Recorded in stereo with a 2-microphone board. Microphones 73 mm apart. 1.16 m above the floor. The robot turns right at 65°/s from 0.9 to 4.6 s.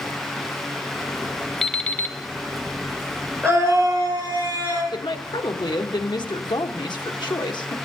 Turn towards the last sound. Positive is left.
turn(degrees=80)